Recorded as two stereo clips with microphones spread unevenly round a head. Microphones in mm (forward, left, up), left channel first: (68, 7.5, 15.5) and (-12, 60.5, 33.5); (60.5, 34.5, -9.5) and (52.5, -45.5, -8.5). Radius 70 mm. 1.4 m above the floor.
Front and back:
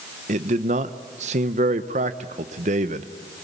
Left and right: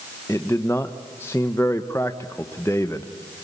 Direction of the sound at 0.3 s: 160° left.